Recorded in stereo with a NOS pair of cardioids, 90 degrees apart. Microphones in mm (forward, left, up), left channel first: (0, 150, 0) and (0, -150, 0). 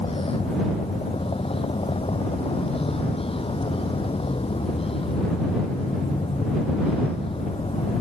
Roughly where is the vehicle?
Ahead.